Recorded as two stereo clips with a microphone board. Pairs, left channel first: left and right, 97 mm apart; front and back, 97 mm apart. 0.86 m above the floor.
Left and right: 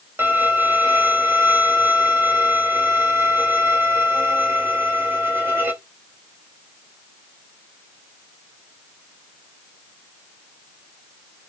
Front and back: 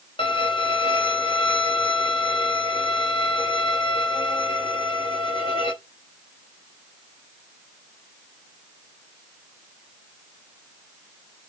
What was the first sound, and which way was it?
A violin, 25° right.